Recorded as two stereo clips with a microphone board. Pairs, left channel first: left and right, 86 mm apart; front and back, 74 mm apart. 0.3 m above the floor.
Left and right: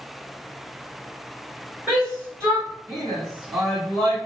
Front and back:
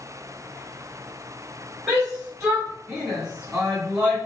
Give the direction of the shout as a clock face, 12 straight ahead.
5 o'clock.